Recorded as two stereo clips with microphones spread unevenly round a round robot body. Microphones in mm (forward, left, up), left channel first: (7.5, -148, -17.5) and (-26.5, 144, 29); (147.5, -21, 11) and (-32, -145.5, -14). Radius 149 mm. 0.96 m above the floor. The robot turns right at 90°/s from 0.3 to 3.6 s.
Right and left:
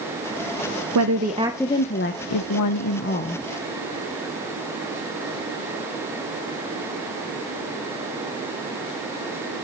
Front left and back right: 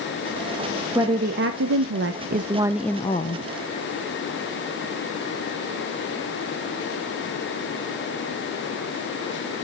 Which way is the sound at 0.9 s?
135° left.